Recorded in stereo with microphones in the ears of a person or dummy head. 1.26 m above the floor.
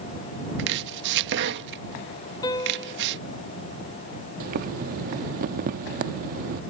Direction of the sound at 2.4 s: 20° left (ahead or behind).